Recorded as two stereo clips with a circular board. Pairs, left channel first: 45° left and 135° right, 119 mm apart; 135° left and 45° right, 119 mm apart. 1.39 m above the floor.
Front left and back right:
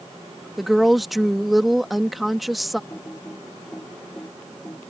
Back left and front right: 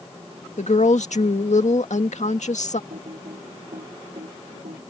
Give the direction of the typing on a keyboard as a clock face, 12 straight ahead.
1 o'clock.